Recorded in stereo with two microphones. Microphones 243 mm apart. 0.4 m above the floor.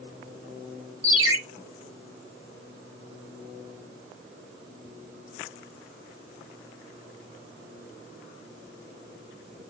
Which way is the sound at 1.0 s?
75° right (ahead or behind).